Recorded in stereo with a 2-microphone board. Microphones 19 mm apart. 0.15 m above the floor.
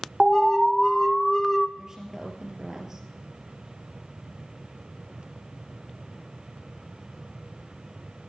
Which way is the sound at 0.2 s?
5° left (ahead or behind).